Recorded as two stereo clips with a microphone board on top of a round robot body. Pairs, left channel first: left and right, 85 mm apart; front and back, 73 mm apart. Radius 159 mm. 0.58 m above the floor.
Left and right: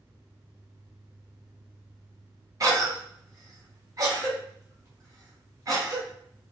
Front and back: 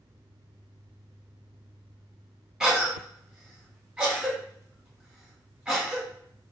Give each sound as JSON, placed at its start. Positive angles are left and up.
{"t": 2.6, "sound": "a cough", "azimuth_deg": -105, "distance_m": 1.6}